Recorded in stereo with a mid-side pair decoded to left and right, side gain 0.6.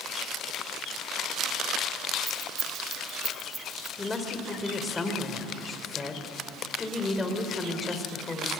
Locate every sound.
2.3 s keys jangling: 30° right, 3.5 m
4.0 s a woman speaking: 20° left, 3.5 m